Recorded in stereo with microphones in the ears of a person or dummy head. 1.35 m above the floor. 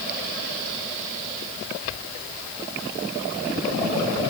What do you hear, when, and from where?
Only background noise.